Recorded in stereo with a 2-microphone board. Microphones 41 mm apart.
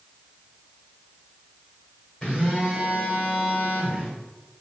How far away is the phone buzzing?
About 1.5 m.